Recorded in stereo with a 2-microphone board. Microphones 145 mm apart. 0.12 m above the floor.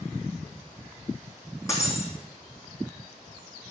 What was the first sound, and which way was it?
Breaking glass, 20° left (ahead or behind).